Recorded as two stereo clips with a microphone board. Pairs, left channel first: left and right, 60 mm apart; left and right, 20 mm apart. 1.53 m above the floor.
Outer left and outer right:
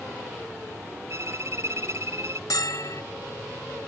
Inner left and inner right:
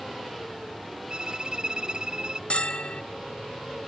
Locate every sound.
1.1 s a violin: 50° right (ahead or behind)
2.5 s a bell: 75° left (ahead or behind)